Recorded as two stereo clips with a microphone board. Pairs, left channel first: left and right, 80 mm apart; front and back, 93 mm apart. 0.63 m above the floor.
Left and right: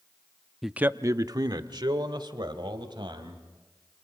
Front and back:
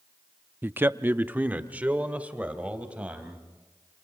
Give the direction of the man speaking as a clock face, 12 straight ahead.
6 o'clock.